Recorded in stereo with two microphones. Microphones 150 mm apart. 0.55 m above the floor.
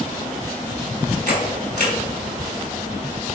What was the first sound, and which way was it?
A camera shutter, 65° right (ahead or behind).